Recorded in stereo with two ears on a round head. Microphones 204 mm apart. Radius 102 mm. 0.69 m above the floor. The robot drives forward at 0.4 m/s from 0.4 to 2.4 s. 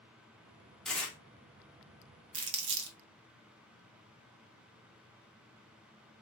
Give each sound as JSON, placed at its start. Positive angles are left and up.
{"t": 0.8, "sound": "tearing paper", "side_deg": 5, "distance_m": 0.7}
{"t": 2.3, "sound": "crumpling", "side_deg": -55, "distance_m": 0.6}